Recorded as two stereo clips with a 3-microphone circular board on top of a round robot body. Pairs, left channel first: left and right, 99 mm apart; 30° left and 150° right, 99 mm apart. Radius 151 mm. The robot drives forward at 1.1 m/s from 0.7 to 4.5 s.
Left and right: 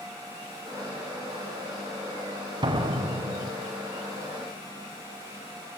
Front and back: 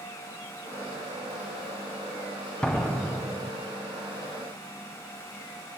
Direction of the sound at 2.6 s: 50° right.